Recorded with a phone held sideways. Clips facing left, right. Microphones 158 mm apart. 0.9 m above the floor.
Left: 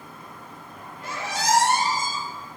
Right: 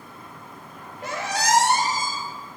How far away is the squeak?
About 1.7 m.